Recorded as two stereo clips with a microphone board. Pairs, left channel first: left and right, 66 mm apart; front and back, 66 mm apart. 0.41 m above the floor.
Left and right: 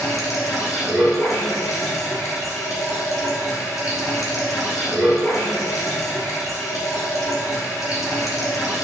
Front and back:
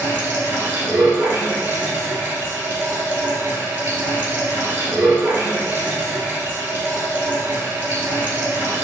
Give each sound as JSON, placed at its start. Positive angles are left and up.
{"t": 0.0, "sound": "running water", "azimuth_deg": 125, "distance_m": 2.0}